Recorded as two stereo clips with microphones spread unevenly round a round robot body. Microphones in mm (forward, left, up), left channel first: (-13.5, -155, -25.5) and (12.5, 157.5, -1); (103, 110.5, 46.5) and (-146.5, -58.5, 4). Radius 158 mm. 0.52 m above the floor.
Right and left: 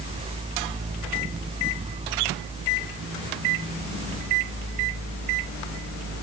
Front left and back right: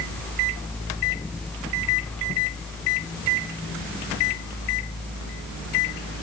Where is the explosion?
No explosion in this recording.